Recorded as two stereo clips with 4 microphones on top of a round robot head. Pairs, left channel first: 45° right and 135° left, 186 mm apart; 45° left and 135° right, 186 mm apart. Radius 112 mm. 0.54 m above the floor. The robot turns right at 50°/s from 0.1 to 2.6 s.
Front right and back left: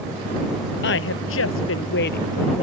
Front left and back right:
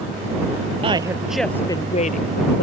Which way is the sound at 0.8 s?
70° right.